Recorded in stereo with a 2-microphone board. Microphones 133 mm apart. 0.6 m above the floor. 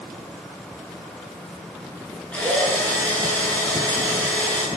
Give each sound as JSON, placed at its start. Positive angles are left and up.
{"t": 2.3, "sound": "a drill", "side_deg": 10, "distance_m": 9.0}